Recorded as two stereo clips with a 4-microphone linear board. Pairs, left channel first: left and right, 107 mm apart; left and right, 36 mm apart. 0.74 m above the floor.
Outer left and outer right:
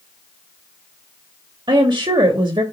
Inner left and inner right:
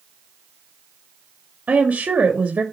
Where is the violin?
I don't hear a violin.